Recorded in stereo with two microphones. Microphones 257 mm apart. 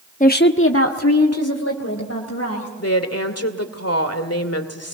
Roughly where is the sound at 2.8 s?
Left.